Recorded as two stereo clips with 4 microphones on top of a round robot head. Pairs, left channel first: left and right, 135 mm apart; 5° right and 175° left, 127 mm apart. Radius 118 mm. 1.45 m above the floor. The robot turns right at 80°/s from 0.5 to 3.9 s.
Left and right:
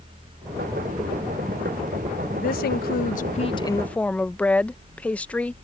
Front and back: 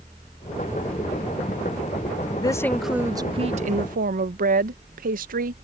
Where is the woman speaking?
50° left; by 5.5 s 170° left.